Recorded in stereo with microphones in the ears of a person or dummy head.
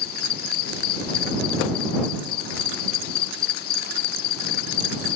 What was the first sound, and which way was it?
An insect, 60° left (ahead or behind).